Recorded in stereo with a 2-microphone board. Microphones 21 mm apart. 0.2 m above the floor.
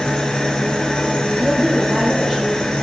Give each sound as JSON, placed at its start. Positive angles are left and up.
{"t": 0.0, "sound": "an engine running", "side_deg": 30, "distance_m": 2.5}
{"t": 1.3, "sound": "a woman speaking", "side_deg": -30, "distance_m": 3.0}